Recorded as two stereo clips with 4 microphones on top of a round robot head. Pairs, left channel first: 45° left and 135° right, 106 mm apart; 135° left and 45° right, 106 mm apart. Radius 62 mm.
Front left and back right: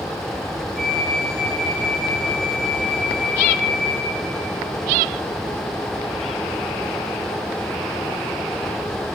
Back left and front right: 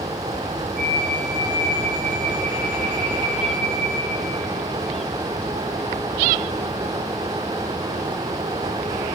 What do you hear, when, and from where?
0.8 s a flute: 45° right, 7 m